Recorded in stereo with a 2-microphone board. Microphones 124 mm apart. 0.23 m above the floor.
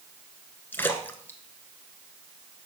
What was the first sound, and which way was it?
A splash, 15° left (ahead or behind).